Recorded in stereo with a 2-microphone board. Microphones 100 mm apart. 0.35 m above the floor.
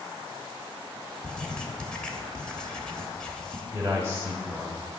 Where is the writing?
10° left (ahead or behind), 1.0 m.